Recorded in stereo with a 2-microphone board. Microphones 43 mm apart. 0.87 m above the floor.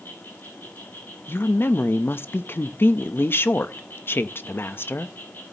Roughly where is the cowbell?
No cowbell in this recording.